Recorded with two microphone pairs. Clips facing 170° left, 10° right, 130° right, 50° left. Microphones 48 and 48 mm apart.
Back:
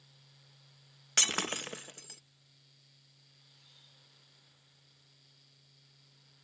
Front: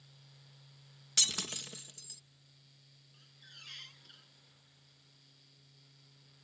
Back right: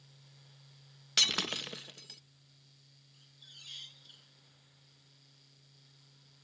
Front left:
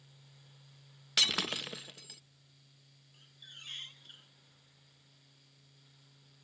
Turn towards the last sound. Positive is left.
turn(degrees=-10)